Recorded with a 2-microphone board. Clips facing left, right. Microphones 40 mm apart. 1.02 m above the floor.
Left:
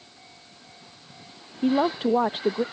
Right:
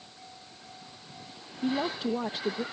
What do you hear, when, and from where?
1.6 s a woman speaking: 40° left (ahead or behind)